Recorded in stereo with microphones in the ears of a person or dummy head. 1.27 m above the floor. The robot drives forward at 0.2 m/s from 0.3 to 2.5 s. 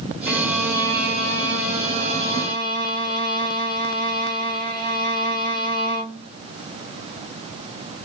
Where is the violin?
50° right (ahead or behind), 1.0 m; by 6.3 s 35° right (ahead or behind), 1.3 m.